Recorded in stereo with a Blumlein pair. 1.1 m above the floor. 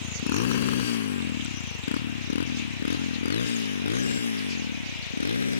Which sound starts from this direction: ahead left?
A motorcycle, at 0.0 s.